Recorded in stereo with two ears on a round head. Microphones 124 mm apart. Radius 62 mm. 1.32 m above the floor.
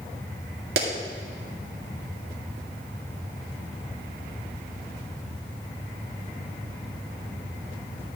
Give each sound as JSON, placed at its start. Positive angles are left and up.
{"t": 0.8, "sound": "a clap", "side_deg": -85, "distance_m": 2.0}